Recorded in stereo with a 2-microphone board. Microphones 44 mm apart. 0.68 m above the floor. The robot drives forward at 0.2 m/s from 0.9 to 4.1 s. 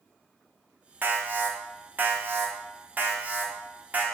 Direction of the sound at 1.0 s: 50° right (ahead or behind).